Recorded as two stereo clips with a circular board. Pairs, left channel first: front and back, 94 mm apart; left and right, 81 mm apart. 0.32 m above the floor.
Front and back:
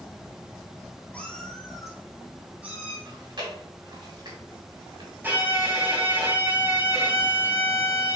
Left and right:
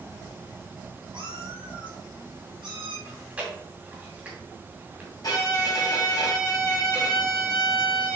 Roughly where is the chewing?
Behind.